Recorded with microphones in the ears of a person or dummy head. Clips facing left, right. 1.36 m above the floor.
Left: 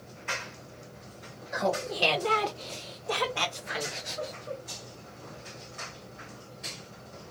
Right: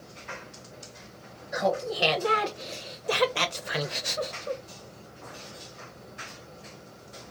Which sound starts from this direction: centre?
Laughter, at 1.5 s.